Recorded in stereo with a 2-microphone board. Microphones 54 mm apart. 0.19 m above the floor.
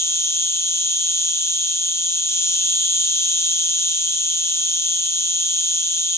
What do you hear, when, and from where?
0.0 s an insect: 60° left (ahead or behind), 1.3 m